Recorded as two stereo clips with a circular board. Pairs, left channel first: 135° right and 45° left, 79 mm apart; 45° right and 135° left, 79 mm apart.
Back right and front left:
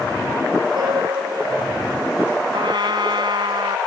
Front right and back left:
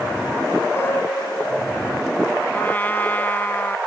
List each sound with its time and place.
0.8 s a piano: 15° left
2.5 s a trumpet: 25° left